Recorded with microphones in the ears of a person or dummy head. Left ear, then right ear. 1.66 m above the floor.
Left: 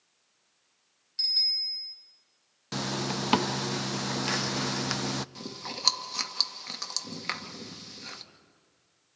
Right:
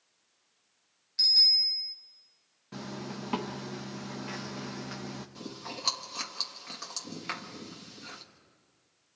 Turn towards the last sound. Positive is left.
turn(degrees=15)  # may be behind; listen again after turning